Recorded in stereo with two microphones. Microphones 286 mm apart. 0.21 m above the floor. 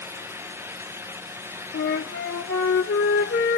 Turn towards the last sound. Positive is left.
turn(degrees=45)  # may be behind; listen again after turning